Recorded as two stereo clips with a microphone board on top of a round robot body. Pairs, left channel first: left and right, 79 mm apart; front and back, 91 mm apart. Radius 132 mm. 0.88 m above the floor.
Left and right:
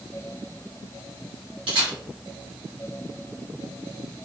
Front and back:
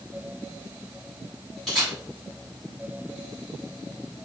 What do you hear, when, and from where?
1.7 s a camera shutter: 85° right, 1.2 m